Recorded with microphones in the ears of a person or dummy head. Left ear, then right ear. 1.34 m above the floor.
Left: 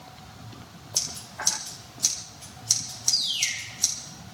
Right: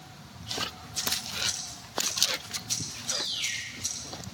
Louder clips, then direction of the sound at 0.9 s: Even; 70° left (ahead or behind).